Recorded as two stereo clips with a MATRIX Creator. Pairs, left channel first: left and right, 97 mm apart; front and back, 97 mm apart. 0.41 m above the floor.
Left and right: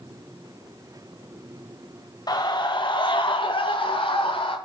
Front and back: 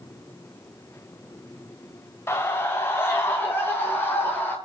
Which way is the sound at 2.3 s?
55° left.